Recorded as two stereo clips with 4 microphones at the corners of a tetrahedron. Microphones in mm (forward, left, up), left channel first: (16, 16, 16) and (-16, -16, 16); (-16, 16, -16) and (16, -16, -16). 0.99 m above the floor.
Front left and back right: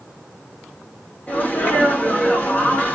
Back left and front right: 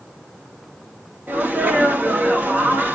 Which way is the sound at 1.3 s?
5° right.